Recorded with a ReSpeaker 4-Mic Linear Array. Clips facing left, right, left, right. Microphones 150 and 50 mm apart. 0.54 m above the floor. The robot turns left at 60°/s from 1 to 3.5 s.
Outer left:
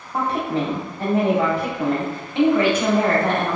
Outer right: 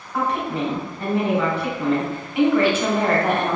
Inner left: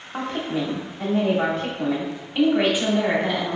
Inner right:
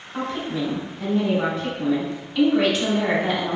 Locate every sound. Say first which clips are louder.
0.1 s a woman speaking: outer left 1 dB, even; 125° left, 0.9 m; by 3.6 s 25° right, 0.9 m